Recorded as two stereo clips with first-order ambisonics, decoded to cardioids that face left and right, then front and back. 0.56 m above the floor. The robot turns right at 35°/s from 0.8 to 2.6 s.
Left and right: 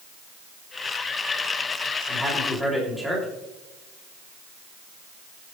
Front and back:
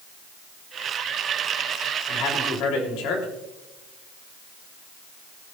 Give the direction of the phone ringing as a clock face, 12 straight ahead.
No phone ringing in this recording.